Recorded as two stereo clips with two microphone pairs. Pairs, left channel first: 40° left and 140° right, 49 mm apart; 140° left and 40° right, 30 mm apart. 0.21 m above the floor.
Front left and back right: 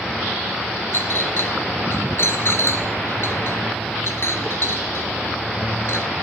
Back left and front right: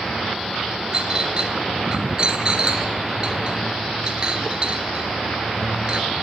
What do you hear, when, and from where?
0.9 s a clink: 20° left, 2.5 m